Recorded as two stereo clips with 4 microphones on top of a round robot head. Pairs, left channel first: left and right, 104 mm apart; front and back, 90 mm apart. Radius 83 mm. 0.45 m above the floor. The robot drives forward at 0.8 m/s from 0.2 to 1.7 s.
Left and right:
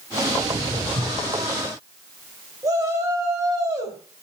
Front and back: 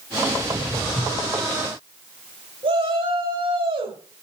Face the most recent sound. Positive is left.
turn(degrees=-150)